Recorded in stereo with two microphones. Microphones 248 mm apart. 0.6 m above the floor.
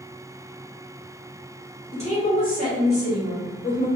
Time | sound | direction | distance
1.9 | a woman speaking | 25° left (ahead or behind) | 1.9 m